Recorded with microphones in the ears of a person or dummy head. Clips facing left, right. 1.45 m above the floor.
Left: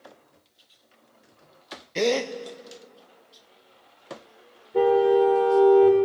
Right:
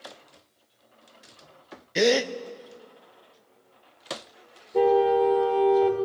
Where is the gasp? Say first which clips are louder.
Right 2 dB; 10° right (ahead or behind), 0.6 m.